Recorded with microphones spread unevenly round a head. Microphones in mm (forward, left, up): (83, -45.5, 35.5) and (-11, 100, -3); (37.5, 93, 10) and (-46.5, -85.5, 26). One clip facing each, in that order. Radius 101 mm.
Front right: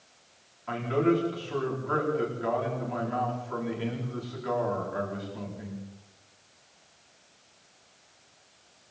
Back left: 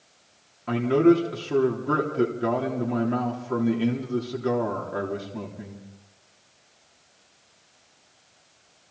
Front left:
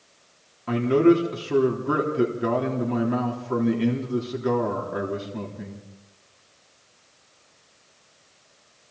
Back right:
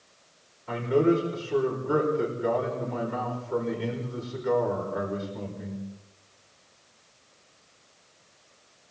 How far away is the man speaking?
About 3.5 m.